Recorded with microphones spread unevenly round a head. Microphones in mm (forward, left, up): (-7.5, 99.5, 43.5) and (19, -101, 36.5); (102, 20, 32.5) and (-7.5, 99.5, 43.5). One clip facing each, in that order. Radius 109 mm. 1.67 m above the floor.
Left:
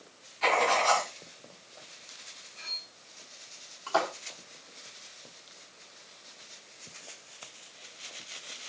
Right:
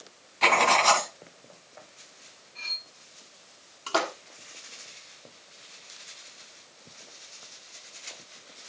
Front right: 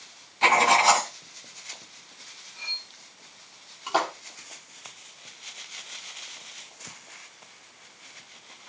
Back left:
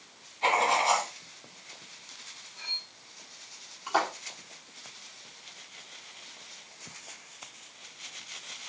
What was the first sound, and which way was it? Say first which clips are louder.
Writing: right 2 dB, front right 5 dB; 60° right.